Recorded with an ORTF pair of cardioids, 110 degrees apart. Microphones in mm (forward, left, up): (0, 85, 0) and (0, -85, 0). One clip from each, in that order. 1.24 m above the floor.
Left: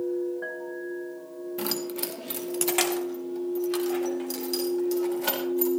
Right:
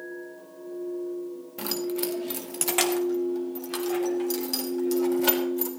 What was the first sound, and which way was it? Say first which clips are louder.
Keys jangling: right 2 dB; 5° left.